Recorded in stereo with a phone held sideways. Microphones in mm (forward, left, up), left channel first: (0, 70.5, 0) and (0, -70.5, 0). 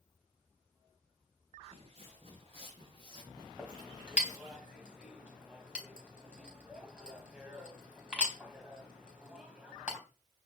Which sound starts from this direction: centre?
A clink, at 3.6 s.